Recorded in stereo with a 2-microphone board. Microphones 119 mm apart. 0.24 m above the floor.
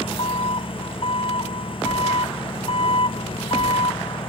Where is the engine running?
50° left (ahead or behind).